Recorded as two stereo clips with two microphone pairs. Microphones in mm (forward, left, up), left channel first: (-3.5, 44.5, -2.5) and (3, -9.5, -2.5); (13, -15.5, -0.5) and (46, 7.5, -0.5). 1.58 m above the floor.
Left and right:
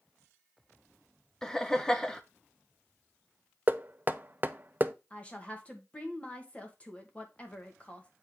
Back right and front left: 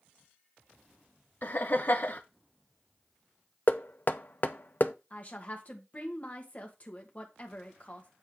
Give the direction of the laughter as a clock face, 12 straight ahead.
6 o'clock.